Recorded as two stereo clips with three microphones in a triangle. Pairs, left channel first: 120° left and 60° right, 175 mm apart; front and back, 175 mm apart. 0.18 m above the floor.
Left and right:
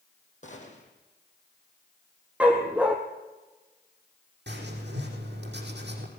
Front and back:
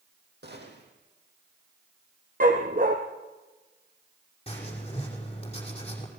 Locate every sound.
0.4 s a gunshot: 165° left, 4 m
2.4 s a dog barking: 145° right, 2.5 m
4.5 s writing: 55° right, 5.5 m